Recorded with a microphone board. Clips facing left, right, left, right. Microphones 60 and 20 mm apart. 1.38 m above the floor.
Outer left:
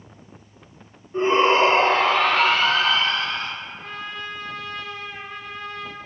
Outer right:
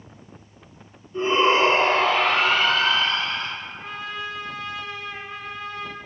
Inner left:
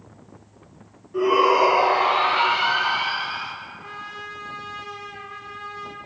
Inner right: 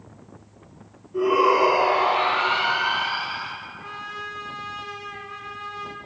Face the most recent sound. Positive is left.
turn(degrees=-5)  # may be behind; listen again after turning